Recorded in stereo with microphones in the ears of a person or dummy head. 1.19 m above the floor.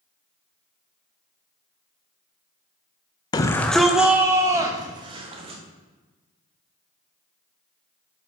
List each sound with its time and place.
3.3 s a shout: 20° left (ahead or behind), 0.7 m; by 5.6 s 25° right (ahead or behind), 1.9 m